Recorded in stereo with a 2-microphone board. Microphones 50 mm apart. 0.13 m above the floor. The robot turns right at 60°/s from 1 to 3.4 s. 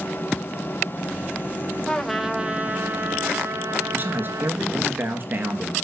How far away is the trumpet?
About 0.8 m.